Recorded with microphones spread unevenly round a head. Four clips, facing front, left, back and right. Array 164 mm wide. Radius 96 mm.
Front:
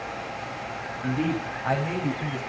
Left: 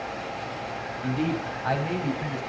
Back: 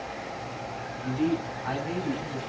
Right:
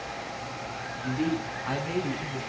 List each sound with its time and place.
1.0 s a man speaking: 45° left, 7.5 m; by 2.4 s 50° left, 8.5 m